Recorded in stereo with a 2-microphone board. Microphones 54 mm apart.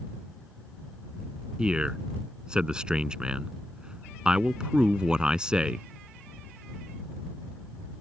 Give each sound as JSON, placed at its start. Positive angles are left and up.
{"t": 1.6, "sound": "a man speaking", "side_deg": -15}